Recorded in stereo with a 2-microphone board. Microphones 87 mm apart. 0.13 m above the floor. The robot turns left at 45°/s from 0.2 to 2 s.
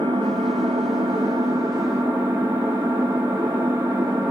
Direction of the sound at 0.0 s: 70° right.